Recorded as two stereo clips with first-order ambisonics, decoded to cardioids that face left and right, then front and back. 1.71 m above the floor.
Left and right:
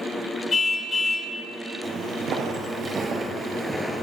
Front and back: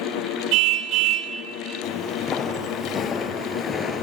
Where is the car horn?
160° left, 2.5 m.